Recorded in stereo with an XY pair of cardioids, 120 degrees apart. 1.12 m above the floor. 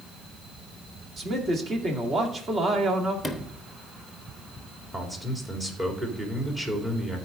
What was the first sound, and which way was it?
A man speaking, 35° right.